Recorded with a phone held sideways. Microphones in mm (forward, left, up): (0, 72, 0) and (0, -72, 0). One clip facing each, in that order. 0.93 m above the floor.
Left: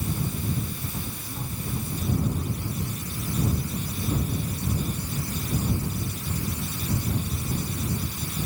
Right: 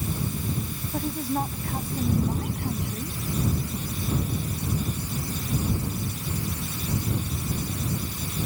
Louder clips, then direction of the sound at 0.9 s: Right 9 dB; 75° right (ahead or behind).